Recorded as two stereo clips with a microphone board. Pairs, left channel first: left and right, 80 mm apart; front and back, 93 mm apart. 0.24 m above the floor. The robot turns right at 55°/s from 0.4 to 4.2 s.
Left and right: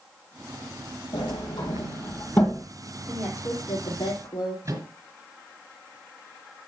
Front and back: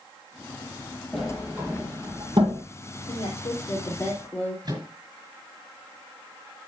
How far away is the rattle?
I don't hear a rattle.